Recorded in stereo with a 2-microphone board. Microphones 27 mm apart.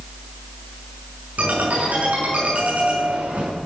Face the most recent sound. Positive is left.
turn(degrees=-80)